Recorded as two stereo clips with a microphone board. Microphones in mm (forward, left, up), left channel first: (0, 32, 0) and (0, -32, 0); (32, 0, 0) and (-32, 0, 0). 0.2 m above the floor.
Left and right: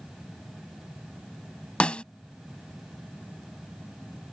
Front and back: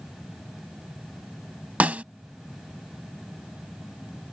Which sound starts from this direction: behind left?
A snare drum, at 1.8 s.